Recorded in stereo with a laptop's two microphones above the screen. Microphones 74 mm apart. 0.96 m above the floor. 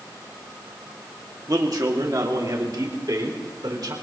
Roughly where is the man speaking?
Right.